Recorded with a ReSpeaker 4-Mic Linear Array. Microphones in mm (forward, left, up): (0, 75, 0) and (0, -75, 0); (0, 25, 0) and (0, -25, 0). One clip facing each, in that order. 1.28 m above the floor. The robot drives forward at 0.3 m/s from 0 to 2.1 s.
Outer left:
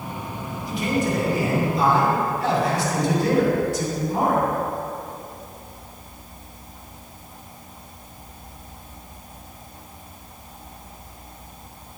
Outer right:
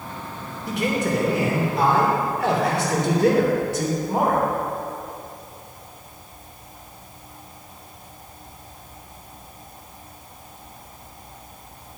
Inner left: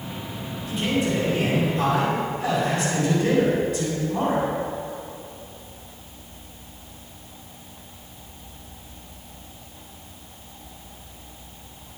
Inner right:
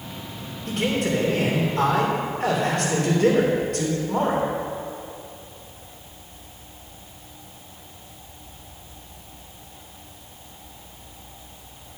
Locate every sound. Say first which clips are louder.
0.7 s a man speaking: even, inner right 1 dB; 70° right (ahead or behind), 3.5 m; by 4.5 s 65° right (ahead or behind), 3.5 m